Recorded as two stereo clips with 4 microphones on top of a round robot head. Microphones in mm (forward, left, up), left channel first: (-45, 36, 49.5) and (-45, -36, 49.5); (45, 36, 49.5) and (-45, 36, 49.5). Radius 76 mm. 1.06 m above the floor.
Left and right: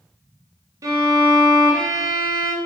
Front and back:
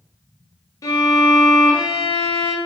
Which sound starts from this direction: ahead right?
A violin, at 0.8 s.